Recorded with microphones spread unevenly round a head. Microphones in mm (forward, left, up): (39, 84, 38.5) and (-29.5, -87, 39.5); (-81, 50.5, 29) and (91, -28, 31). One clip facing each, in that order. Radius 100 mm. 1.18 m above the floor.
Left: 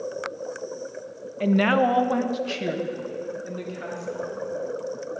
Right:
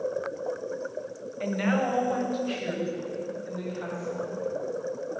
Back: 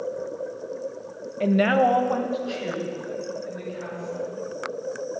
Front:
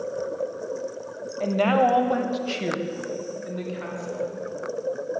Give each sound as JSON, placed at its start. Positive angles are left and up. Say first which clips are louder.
{"t": 1.4, "sound": "a woman speaking", "louder": "left 7 dB, back 1 dB", "azimuth_deg": 100, "distance_m": 1.2}